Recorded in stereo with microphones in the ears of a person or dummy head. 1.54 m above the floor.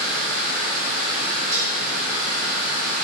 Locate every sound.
0.0 s running water: 50° right (ahead or behind), 0.8 m
1.5 s dishes clattering: 15° right (ahead or behind), 1.5 m